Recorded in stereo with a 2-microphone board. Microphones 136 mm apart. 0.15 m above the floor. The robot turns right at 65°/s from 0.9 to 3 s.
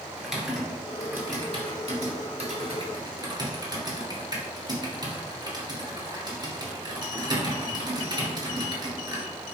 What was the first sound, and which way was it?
Typing on a keyboard, 5° right (ahead or behind).